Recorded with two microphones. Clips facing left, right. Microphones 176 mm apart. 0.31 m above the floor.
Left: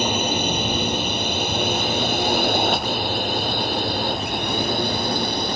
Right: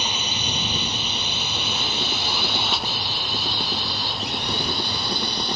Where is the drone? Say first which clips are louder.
Left 9 dB; 50° left (ahead or behind).